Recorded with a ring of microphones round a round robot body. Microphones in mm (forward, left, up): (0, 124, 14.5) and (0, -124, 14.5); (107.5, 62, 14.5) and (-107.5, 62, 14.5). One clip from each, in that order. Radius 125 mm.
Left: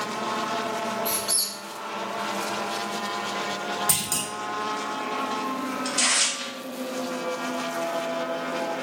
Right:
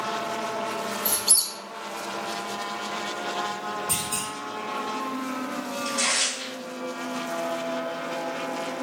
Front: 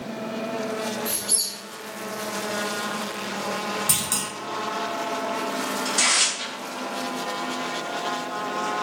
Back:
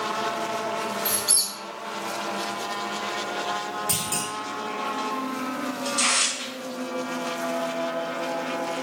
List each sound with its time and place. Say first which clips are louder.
1.1 s a squeak: right 1 dB, back 2 dB; 130° right, 0.7 m
3.9 s a clunk: left 1 dB, front 2 dB; 50° left, 0.7 m
5.8 s tearing paper: left 1 dB, front 2 dB; 45° left, 1.9 m